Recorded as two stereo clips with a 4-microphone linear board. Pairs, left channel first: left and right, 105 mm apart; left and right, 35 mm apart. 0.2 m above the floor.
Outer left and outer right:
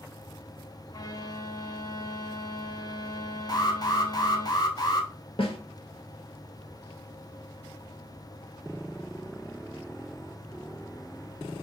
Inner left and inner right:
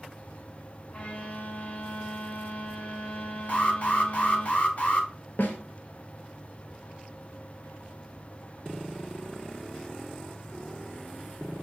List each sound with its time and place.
0.9 s a violin: 40° left (ahead or behind), 0.5 m
3.5 s an alarm: 40° left (ahead or behind), 1.0 m
5.4 s a snare drum: 60° left (ahead or behind), 1.0 m